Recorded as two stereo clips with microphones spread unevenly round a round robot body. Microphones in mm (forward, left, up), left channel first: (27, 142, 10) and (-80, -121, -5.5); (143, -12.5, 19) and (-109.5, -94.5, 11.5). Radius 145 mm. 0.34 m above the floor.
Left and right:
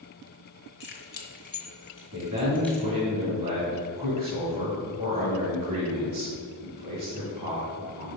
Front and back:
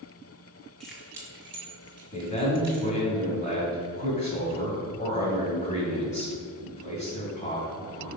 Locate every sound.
0.8 s keys jangling: 105° left, 1.1 m; by 2.9 s 160° left, 1.7 m
2.1 s a man speaking: 45° right, 2 m